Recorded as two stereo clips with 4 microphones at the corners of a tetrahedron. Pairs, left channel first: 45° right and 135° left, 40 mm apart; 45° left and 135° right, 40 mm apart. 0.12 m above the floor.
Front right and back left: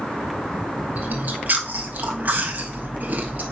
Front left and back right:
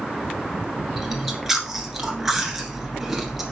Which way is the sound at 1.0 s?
145° left.